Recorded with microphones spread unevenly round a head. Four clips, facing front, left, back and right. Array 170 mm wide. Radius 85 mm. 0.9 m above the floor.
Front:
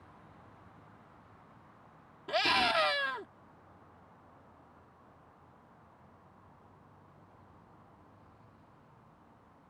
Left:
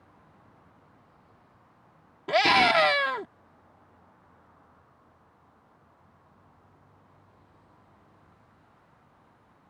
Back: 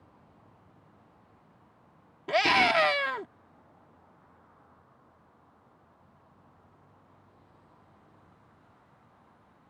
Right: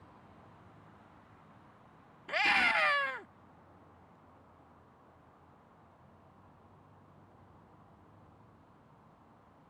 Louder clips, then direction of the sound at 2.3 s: Left 10 dB, back 6 dB; 120° left.